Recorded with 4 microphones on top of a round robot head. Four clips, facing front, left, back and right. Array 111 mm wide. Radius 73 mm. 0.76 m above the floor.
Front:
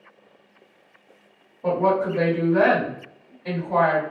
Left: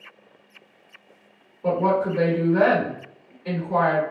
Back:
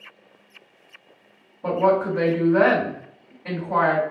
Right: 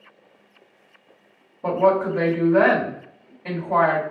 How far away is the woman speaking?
About 1.7 m.